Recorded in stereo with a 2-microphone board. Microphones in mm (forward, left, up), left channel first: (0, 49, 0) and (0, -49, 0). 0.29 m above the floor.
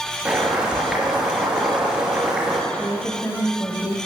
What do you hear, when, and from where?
0.2 s boiling: 10° right (ahead or behind), 3 m
2.7 s a woman speaking: 20° left (ahead or behind), 1.3 m